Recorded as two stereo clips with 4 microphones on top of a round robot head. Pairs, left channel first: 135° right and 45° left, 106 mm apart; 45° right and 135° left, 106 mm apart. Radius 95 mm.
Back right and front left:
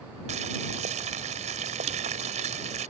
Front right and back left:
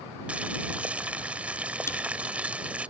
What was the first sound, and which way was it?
Boiling, 55° left.